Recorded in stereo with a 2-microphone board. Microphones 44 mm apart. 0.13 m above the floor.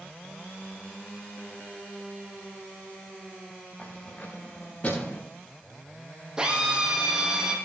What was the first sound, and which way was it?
Keys jangling, 35° left (ahead or behind).